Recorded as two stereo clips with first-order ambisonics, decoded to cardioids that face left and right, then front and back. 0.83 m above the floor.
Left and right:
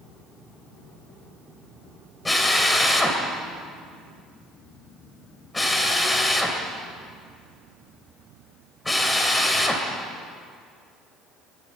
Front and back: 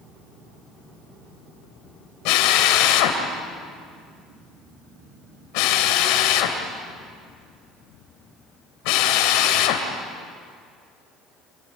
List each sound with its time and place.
2.2 s a drill: 10° left, 3 m